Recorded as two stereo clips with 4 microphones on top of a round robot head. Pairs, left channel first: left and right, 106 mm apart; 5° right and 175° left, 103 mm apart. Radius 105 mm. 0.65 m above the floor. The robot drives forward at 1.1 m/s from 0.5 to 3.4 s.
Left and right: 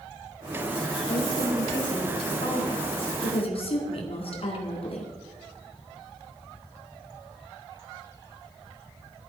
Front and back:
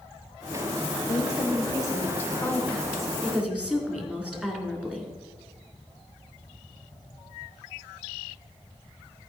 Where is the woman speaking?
40° left, 3 m; by 5.1 s 95° left, 2.5 m.